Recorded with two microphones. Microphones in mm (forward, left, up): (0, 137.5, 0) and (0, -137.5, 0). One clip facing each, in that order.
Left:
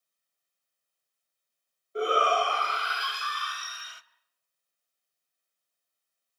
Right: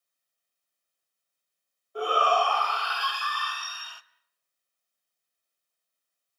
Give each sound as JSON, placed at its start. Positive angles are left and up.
{"t": 1.9, "sound": "a shout", "side_deg": 25, "distance_m": 1.2}